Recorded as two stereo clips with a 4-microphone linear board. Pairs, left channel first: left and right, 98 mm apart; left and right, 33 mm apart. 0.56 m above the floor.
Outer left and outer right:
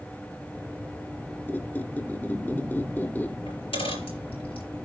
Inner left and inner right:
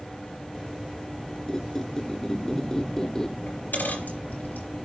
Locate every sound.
1.5 s a squeak: 20° left (ahead or behind), 0.7 m
3.5 s a dropped coin: 70° left (ahead or behind), 4.5 m